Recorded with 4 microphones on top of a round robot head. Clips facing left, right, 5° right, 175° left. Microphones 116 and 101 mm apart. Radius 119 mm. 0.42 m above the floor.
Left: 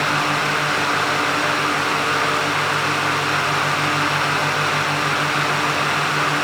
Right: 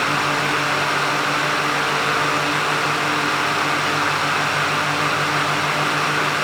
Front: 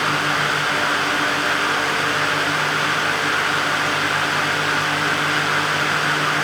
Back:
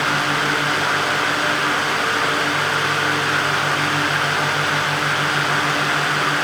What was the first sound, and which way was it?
Only background noise.